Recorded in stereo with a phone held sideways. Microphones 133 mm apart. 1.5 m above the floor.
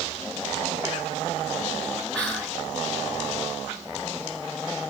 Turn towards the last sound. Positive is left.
turn(degrees=10)  # may be behind; listen again after turning